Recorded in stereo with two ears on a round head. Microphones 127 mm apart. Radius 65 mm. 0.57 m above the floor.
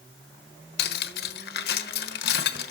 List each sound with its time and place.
0.8 s cutlery clinking: 80° left, 1.1 m